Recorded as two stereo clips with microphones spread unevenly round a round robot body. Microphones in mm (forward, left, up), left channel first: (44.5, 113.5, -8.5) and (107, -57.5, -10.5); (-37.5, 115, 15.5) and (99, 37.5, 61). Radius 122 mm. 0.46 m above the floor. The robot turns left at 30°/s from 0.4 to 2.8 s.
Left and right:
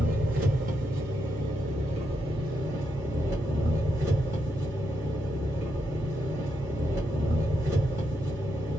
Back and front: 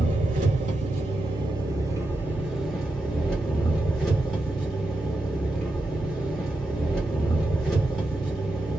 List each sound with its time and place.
0.0 s an engine running: 70° right, 1.2 m; by 8.8 s 140° right, 1.2 m